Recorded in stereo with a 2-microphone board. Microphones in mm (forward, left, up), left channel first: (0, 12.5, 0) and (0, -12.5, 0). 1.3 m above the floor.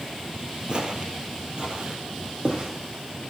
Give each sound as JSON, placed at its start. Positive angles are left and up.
{"t": 0.7, "sound": "footsteps", "side_deg": -35, "distance_m": 1.7}